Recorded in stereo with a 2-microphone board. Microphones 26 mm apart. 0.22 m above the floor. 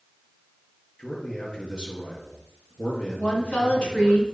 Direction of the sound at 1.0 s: 35° left (ahead or behind).